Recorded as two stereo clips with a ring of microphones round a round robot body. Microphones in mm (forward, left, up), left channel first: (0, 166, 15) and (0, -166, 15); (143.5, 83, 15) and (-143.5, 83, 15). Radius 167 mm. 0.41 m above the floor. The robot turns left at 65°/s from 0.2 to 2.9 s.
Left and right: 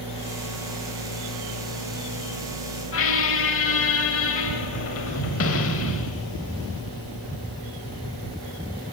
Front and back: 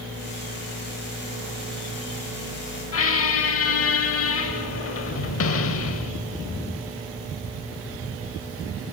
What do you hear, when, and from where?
2.9 s a squeak: 40° left, 0.8 m